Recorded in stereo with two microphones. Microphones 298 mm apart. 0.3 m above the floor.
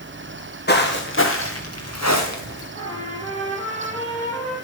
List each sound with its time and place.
0.7 s footsteps: 35° left (ahead or behind), 2 m; by 2.6 s 70° left (ahead or behind), 2 m
2.8 s a trumpet: 20° left (ahead or behind), 8 m